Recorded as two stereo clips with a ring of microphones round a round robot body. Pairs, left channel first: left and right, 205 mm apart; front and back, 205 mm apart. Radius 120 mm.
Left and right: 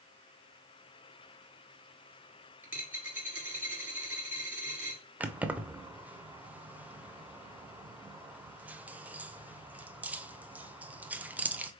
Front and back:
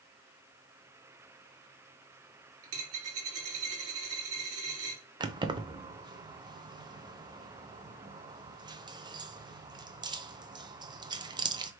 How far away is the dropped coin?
About 2.0 m.